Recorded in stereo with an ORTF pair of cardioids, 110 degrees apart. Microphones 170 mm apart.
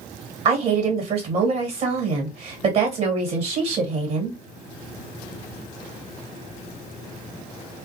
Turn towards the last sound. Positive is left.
turn(degrees=-40)